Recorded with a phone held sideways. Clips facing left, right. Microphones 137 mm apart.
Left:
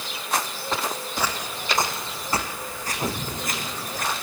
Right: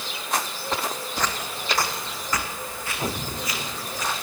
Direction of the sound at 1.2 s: 10° left (ahead or behind).